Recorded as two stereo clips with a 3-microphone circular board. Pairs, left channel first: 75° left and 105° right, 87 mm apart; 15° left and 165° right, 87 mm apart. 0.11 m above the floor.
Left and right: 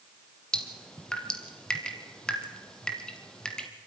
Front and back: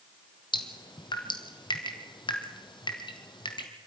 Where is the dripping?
5° right, 1.9 m.